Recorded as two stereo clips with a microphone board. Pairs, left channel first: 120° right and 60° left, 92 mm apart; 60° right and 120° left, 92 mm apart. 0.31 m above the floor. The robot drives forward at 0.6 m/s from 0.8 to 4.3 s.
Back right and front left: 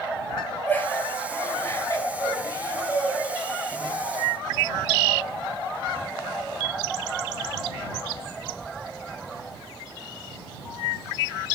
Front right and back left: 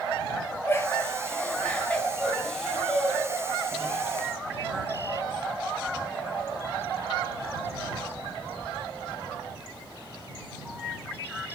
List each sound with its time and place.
0.7 s laughter: 80° right, 1.4 m; by 3.9 s 160° right, 2.5 m